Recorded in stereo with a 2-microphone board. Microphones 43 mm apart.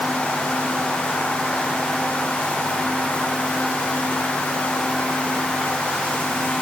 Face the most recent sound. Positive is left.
No sound to turn to.